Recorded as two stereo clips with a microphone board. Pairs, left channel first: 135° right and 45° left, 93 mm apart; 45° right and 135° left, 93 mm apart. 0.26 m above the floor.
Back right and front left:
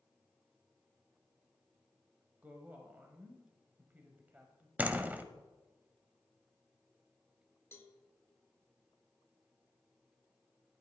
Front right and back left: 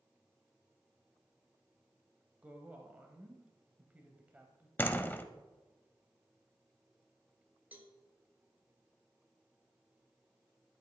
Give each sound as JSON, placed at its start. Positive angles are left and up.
{"t": 2.4, "sound": "a woman speaking", "azimuth_deg": 90, "distance_m": 1.0}
{"t": 4.8, "sound": "a door slam", "azimuth_deg": -5, "distance_m": 0.6}
{"t": 7.7, "sound": "a cowbell", "azimuth_deg": -170, "distance_m": 0.9}